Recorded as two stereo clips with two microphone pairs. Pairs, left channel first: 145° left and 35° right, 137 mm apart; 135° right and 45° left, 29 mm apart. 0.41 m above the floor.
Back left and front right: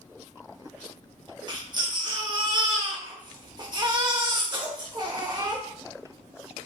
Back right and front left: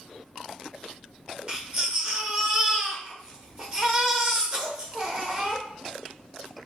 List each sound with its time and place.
1.5 s a baby crying: 10° right, 0.7 m